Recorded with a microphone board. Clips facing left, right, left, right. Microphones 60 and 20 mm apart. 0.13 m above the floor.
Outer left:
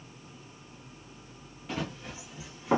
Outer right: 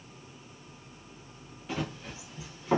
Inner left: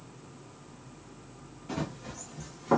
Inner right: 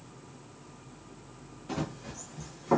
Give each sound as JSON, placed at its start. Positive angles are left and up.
{"t": 1.7, "sound": "running footsteps", "side_deg": 0, "distance_m": 1.6}